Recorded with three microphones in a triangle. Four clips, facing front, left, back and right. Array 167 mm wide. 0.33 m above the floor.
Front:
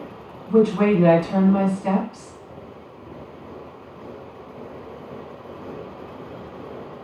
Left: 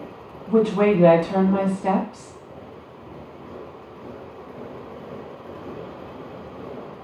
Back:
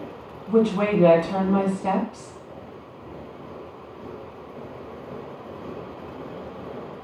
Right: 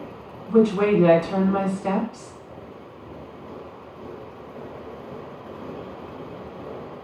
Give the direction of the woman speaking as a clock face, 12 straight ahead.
8 o'clock.